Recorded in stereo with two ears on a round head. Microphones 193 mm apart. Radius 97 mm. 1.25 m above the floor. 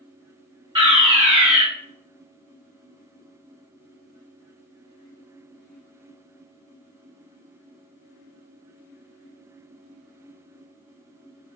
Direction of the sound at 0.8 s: 25° right (ahead or behind).